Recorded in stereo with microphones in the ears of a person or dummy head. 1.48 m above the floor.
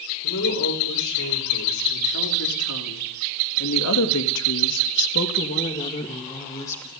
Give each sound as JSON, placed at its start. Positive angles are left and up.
{"t": 0.2, "sound": "a woman speaking", "side_deg": 60, "distance_m": 7.0}